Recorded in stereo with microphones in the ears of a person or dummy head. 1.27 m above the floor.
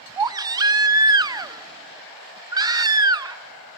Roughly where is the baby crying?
Centre.